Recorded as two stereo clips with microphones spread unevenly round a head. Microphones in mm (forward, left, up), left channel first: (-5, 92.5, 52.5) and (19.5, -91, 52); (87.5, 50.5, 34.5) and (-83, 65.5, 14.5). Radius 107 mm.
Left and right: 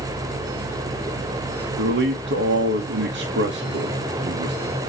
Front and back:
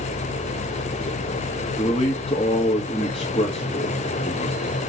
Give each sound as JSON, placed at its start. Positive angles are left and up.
{"t": 1.8, "sound": "a man speaking", "azimuth_deg": -70, "distance_m": 1.7}